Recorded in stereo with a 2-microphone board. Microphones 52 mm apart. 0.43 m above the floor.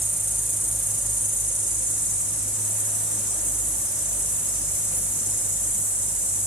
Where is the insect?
40° left (ahead or behind), 1.2 m.